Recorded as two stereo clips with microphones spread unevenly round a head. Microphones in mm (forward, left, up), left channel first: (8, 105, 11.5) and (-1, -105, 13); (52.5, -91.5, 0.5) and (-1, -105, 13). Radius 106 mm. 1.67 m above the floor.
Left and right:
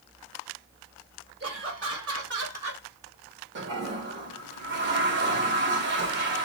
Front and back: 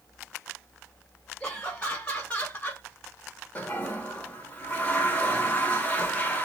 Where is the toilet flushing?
55° right, 1.3 m.